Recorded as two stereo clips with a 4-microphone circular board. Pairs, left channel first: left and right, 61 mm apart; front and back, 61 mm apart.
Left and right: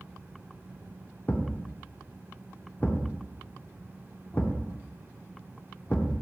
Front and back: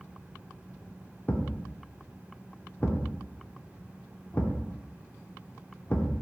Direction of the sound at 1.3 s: 50° left.